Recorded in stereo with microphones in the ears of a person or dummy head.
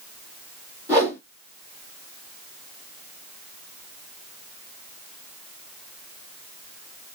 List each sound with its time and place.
0.9 s a whoosh: 15° right (ahead or behind), 1.6 m